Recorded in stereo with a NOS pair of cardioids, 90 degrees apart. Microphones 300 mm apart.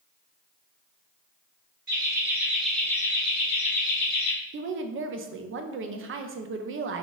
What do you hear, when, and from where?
1.9 s laughter: 30° right, 1.0 m; by 4.3 s 45° left, 1.4 m
4.5 s a woman speaking: 45° right, 0.5 m